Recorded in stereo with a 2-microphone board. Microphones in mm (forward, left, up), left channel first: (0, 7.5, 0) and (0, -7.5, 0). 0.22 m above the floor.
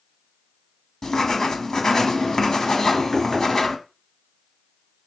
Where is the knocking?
5° left (ahead or behind), 2.5 m.